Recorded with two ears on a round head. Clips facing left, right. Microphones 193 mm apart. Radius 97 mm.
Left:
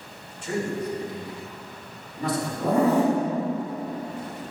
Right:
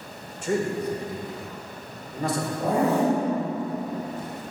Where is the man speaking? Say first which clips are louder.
Right 3 dB; 40° right (ahead or behind), 1.3 m.